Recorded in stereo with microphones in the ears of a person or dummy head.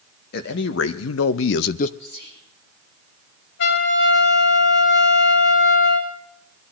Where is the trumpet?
65° left (ahead or behind), 5 m.